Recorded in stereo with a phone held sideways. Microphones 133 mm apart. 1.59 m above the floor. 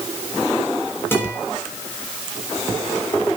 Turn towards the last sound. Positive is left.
turn(degrees=15)  # may be behind; listen again after turning